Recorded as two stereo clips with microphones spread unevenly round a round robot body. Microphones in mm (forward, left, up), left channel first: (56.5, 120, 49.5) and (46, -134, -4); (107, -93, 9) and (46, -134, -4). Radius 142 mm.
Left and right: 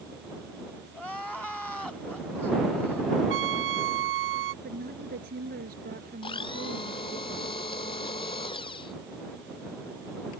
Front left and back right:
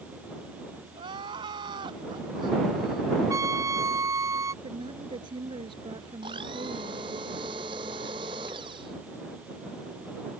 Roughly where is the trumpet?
Behind right.